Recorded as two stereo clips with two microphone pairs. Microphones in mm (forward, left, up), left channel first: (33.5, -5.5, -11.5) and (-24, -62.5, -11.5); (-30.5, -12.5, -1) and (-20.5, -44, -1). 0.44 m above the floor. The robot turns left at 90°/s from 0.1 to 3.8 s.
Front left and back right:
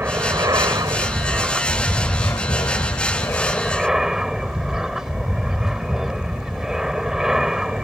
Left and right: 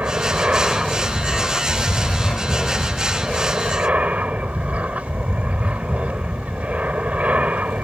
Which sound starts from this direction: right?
An aircraft, at 0.0 s.